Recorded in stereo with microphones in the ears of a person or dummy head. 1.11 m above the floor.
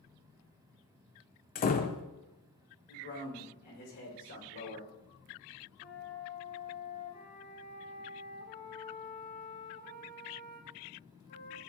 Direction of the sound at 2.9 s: 55° left (ahead or behind).